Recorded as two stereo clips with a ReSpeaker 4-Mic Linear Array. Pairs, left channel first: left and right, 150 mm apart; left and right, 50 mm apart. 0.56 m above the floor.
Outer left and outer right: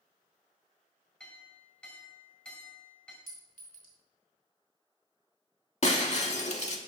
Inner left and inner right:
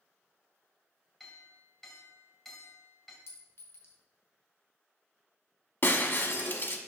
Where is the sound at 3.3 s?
70° left (ahead or behind), 1.8 m.